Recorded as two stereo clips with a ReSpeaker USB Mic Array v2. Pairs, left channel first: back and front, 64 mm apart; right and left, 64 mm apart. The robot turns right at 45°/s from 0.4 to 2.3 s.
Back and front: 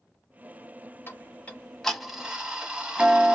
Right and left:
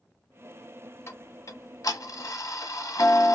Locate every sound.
1.1 s ticking: 130° right, 0.9 m; by 3.4 s 75° right, 0.9 m